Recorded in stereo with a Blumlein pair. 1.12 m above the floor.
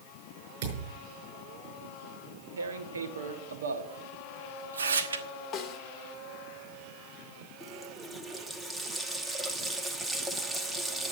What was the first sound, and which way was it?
A thud, 55° right.